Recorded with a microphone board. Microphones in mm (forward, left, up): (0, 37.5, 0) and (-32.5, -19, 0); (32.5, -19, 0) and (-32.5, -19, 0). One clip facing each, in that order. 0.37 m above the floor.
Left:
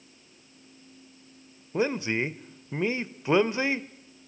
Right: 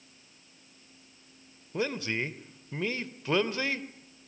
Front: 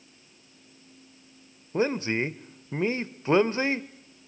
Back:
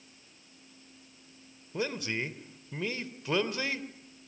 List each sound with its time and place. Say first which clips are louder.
1.7 s a man speaking: left 5 dB, front 8 dB; 10° left, 1.0 m